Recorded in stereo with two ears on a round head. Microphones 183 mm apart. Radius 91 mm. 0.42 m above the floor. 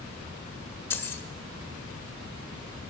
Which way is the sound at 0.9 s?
10° left (ahead or behind).